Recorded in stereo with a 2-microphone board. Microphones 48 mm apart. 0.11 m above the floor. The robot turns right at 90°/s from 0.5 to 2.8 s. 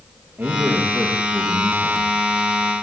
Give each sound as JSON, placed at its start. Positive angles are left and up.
{"t": 0.4, "sound": "a man speaking", "azimuth_deg": -70, "distance_m": 7.0}